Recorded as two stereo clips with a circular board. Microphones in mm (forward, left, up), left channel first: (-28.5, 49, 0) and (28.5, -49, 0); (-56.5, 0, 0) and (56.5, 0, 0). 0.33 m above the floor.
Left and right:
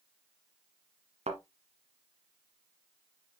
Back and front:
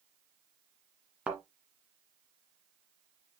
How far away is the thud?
About 1.8 m.